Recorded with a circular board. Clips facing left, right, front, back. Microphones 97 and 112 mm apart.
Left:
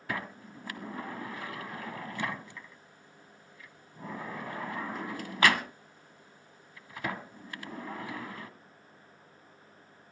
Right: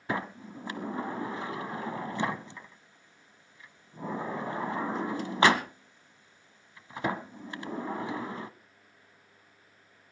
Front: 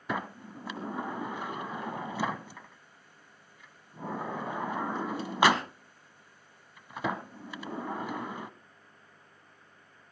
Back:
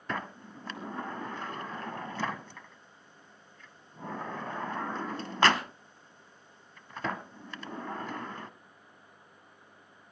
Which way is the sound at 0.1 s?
65° right.